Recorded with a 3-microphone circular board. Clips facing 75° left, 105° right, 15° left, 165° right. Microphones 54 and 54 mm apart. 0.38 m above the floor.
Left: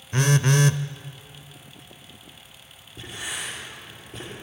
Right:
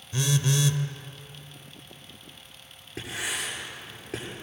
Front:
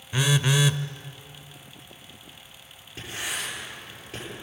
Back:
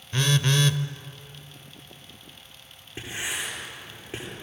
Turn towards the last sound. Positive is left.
turn(degrees=-95)